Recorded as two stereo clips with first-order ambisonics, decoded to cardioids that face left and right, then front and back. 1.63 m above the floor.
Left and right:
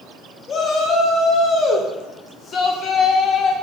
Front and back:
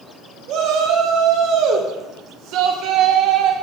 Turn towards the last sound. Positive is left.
turn(degrees=150)